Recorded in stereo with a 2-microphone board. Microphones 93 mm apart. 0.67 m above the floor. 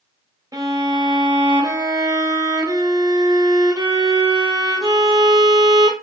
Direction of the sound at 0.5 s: 40° right (ahead or behind).